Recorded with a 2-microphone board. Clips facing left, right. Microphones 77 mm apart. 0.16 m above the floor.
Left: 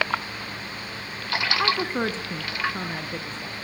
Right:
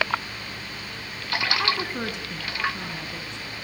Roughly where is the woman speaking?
Centre.